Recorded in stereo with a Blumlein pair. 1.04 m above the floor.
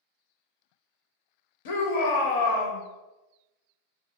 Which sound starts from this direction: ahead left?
A shout, at 1.6 s.